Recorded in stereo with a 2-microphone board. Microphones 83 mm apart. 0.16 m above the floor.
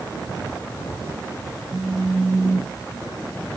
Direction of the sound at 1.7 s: 35° right (ahead or behind).